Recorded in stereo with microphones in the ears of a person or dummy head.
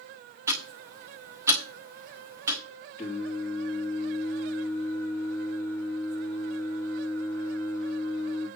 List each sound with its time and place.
0.5 s ticking: 20° right (ahead or behind), 1.2 m
3.0 s singing: 10° left (ahead or behind), 3 m